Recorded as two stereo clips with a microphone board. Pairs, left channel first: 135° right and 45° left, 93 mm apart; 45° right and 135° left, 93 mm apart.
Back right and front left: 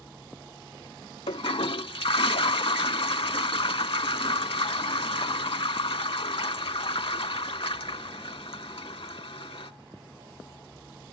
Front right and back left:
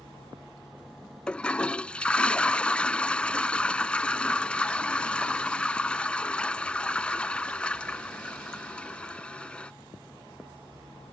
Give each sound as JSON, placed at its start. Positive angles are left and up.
{"t": 1.3, "sound": "a toilet flushing", "azimuth_deg": -125}